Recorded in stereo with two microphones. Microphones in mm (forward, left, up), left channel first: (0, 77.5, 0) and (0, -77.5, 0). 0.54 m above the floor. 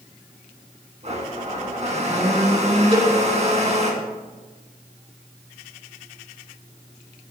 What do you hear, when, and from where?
1.0 s a blender: 45° right (ahead or behind), 3 m
2.9 s a cowbell: 30° right (ahead or behind), 3 m